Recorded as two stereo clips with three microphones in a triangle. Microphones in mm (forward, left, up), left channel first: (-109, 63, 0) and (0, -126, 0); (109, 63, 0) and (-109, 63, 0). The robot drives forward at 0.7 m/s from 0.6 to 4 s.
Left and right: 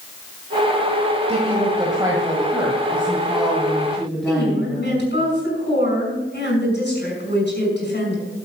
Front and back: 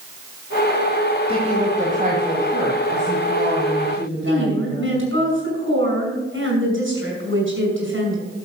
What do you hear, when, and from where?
1.3 s a woman speaking: 120° right, 1.8 m; by 5.0 s 150° right, 3 m
4.3 s a woman speaking: 160° left, 5.5 m